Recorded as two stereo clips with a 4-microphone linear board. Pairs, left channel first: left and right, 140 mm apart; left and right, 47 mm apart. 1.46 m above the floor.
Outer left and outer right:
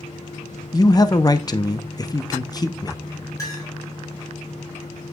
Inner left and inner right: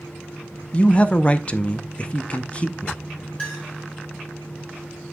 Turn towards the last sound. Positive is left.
turn(degrees=25)  # may be behind; listen again after turning